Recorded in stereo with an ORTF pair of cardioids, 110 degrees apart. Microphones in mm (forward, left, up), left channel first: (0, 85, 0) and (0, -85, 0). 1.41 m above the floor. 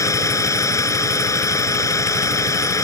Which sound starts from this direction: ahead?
An engine running, at 0.0 s.